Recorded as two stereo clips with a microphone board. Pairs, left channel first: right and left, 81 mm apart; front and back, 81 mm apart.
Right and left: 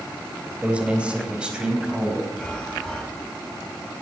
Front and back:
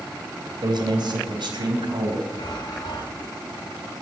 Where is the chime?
10° right, 3.5 m.